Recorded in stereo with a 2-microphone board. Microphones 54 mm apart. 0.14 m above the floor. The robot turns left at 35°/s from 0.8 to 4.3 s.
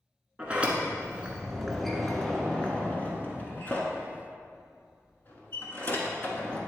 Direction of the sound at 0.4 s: 20° right (ahead or behind).